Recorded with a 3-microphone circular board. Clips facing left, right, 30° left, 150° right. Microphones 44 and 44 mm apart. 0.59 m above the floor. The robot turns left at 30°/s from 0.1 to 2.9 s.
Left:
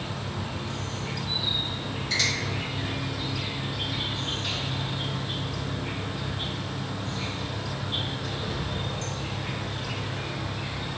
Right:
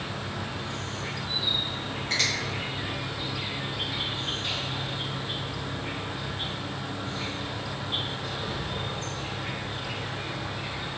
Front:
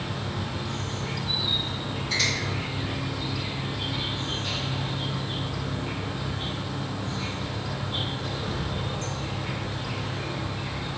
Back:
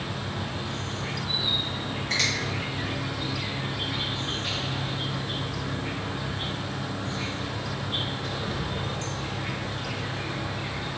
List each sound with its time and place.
0.0 s an insect: 80° right, 0.8 m; by 11.0 s 165° right, 0.8 m
2.1 s a finger snap: 135° right, 1.8 m; by 2.3 s 140° right, 1.8 m